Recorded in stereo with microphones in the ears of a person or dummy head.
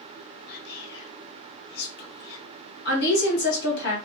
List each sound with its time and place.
0.5 s whispering: 60° left (ahead or behind), 0.9 m
2.9 s a woman speaking: 65° left (ahead or behind), 1.4 m